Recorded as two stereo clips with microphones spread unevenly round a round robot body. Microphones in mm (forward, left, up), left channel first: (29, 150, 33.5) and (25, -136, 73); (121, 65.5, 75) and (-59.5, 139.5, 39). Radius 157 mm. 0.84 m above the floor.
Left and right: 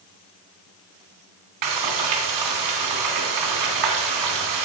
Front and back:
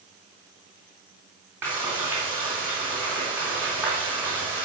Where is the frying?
115° right, 3 m.